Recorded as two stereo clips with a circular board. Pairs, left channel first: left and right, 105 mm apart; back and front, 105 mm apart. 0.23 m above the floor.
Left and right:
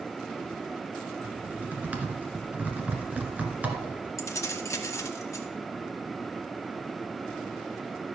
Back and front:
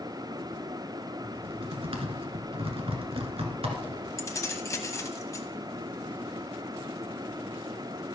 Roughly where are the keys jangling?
Behind left.